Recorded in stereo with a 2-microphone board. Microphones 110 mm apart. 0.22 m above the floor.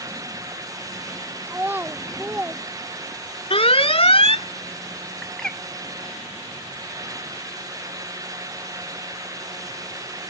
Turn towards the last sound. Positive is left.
turn(degrees=5)  # may be behind; listen again after turning